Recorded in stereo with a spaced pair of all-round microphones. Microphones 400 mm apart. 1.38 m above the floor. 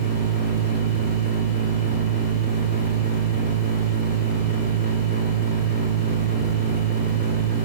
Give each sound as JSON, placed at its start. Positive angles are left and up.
{"t": 0.0, "sound": "a machine running", "side_deg": -25, "distance_m": 1.6}